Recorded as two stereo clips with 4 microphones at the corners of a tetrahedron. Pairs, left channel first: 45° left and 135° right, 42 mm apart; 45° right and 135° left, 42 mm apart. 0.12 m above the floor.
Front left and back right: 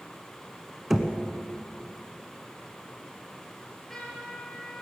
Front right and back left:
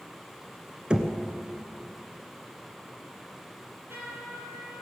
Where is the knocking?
155° left, 1.0 m.